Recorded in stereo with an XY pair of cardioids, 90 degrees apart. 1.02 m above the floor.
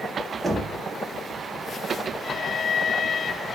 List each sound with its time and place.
0.4 s knocking: 30° right, 1.1 m